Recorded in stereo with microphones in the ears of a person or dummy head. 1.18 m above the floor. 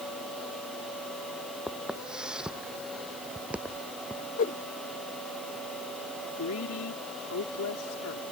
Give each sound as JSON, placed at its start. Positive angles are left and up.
{"t": 1.7, "sound": "footsteps", "side_deg": -5}
{"t": 4.4, "sound": "a whoosh", "side_deg": 40}
{"t": 6.4, "sound": "a woman speaking", "side_deg": 85}